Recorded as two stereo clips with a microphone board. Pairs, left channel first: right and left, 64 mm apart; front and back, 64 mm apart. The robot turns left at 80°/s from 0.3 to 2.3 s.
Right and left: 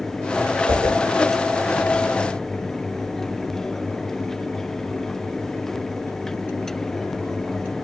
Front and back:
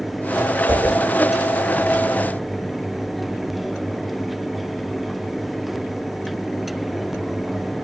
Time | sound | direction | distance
0.7 | a whoosh | 135° left | 1.2 m